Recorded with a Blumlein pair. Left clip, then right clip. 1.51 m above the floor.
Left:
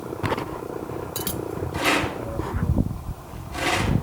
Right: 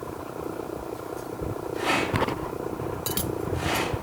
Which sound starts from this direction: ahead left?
A rattle, at 1.7 s.